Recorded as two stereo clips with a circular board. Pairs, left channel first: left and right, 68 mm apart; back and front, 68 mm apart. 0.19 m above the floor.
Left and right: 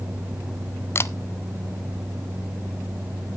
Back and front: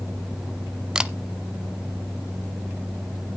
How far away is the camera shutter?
About 0.6 m.